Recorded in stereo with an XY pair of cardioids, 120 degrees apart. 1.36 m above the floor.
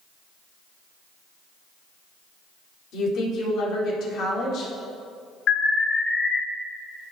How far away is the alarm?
About 2.5 m.